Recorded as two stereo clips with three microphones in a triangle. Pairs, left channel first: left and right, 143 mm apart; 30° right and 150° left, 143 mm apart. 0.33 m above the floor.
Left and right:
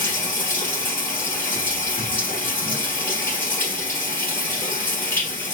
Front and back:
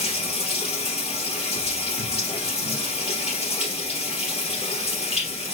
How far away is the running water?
About 2.5 m.